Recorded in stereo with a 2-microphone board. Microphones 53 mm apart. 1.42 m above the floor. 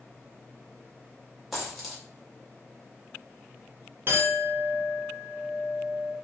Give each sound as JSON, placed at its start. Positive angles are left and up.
{"t": 1.5, "sound": "a dropped coin", "side_deg": -5, "distance_m": 1.1}
{"t": 4.1, "sound": "a clink", "side_deg": -45, "distance_m": 0.7}